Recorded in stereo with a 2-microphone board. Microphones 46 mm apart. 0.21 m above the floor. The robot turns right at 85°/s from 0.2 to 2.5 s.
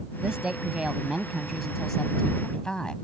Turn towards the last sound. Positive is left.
turn(degrees=20)  # may be behind; listen again after turning